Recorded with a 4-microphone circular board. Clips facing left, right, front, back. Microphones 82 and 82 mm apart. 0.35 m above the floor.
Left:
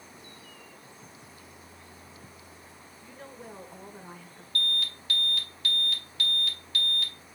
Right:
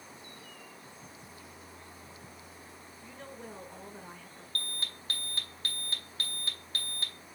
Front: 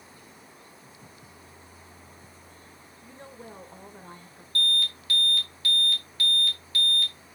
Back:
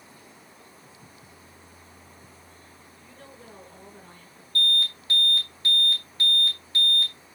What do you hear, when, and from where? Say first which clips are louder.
3.0 s a woman speaking: left 1 dB, front 4 dB; 15° left, 1.2 m
4.5 s an alarm: left 8 dB, back 2 dB; 125° right, 3 m